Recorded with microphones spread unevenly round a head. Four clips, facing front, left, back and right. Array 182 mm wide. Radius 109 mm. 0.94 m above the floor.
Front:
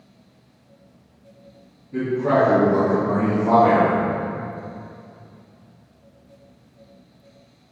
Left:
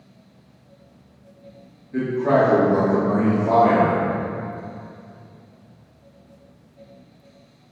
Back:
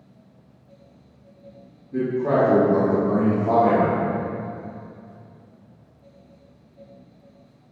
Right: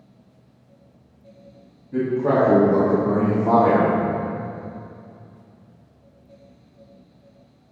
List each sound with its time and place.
1.9 s a man speaking: 95° right, 2 m; by 3.9 s 45° right, 1.6 m